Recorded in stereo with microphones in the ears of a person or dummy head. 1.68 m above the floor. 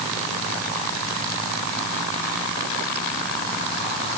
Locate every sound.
Only background noise.